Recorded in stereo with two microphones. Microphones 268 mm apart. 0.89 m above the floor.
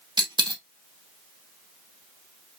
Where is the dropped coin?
15° right (ahead or behind), 0.9 m.